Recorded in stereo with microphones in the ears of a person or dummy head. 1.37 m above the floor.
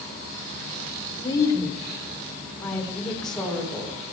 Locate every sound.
1.2 s a woman speaking: 20° left (ahead or behind), 3.5 m; by 3.9 s centre (ahead or behind), 5 m